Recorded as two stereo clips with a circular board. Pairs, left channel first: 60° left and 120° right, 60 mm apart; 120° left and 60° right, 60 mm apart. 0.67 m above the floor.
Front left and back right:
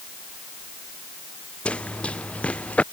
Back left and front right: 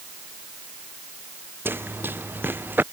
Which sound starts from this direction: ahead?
Running footsteps, at 1.6 s.